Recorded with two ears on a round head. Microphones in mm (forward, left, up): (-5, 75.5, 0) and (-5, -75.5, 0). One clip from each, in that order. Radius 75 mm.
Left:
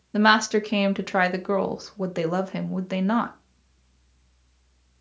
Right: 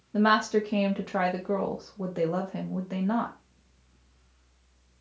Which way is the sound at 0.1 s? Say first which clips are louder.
Left 4 dB; 50° left (ahead or behind).